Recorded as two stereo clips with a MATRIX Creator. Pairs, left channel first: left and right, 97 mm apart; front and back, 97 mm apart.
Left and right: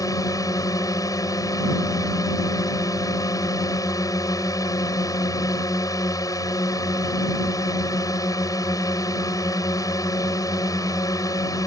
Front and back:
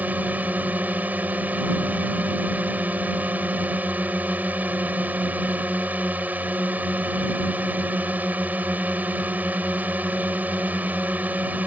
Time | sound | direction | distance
0.0 | a drone | 115° left | ?